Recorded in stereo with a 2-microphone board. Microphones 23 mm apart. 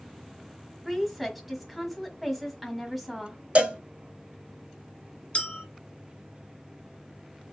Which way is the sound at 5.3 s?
55° left (ahead or behind).